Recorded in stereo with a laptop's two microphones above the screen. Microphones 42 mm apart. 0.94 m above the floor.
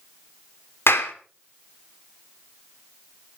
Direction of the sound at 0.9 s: 70° left (ahead or behind).